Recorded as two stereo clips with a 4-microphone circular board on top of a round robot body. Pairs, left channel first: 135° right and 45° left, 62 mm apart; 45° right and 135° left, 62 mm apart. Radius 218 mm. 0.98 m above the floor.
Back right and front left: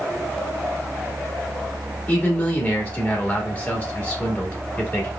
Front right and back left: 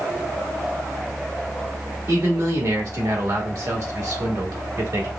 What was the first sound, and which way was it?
A man speaking, 160° left.